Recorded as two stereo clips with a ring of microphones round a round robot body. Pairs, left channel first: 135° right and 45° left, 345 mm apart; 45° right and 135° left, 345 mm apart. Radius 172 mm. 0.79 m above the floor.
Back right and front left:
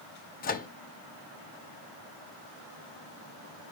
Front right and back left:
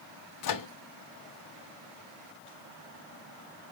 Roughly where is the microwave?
Right.